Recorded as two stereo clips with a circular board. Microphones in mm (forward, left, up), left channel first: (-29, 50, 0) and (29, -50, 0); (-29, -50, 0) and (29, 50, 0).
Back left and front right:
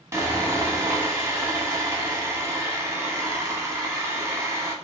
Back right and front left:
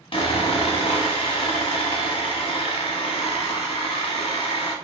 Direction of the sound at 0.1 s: 115° right.